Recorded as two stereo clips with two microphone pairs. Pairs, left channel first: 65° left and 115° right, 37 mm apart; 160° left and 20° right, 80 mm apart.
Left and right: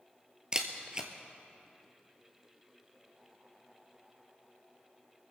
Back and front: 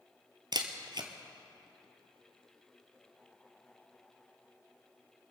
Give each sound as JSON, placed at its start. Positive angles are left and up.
{"t": 0.5, "sound": "a camera shutter", "azimuth_deg": -50, "distance_m": 1.3}